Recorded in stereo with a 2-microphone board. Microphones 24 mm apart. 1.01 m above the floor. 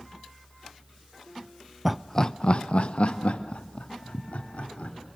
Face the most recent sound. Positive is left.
turn(degrees=80)